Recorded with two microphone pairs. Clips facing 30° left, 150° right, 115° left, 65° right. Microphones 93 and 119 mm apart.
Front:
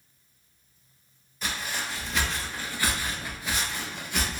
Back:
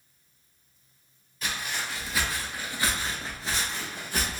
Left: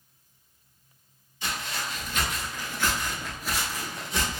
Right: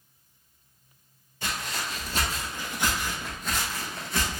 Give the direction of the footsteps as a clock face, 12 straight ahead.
2 o'clock.